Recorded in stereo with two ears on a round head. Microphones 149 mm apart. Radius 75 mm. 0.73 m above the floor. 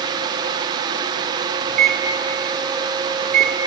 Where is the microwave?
60° right (ahead or behind), 1.7 m.